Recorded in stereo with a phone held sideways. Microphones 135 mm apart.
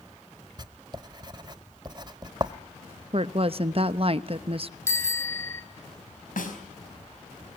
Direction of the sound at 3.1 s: 45° right (ahead or behind).